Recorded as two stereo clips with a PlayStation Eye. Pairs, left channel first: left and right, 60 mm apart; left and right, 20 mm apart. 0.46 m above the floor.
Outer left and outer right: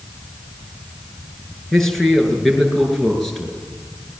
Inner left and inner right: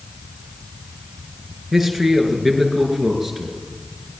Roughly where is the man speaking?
Centre.